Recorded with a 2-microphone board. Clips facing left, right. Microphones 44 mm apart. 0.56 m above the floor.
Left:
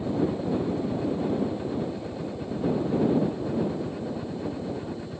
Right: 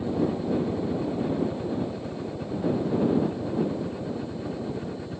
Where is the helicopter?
10° right (ahead or behind); by 5.2 s 15° right (ahead or behind).